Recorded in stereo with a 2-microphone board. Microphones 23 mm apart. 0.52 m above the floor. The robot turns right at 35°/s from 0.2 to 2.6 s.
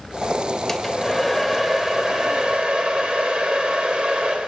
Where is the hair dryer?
170° left, 2.5 m; by 4.5 s 125° right, 2.5 m.